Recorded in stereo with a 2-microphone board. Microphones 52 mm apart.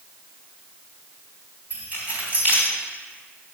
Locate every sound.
1.7 s keys jangling: 35° right (ahead or behind), 3.5 m